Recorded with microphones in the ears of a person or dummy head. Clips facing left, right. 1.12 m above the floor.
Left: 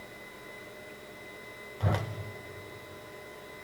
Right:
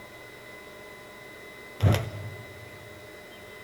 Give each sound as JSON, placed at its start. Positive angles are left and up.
{"t": 1.8, "sound": "a whoosh", "side_deg": -30, "distance_m": 0.7}